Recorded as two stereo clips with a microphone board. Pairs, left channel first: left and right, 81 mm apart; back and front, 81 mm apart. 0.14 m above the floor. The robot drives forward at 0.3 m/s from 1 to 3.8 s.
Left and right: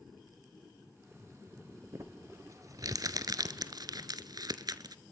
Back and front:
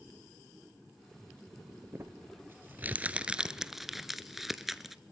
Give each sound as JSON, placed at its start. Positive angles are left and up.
{"t": 1.9, "sound": "crumpling", "azimuth_deg": -50, "distance_m": 1.0}